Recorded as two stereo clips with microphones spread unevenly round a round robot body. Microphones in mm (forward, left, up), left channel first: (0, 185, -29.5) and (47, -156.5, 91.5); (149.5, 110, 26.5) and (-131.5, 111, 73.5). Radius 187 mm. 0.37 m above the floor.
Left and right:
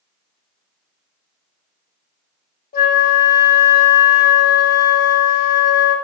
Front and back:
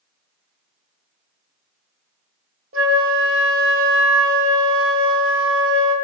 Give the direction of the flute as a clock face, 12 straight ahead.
7 o'clock.